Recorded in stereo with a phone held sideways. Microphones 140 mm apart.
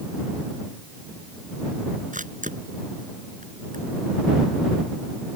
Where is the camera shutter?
65° right (ahead or behind).